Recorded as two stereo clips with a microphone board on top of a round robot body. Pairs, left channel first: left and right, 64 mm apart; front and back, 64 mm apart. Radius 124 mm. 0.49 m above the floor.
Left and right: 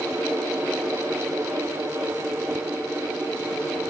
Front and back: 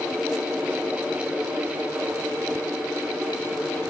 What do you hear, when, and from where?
Only background noise.